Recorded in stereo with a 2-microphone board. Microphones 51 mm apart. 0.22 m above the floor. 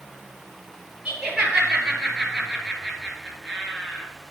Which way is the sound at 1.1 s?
15° right (ahead or behind).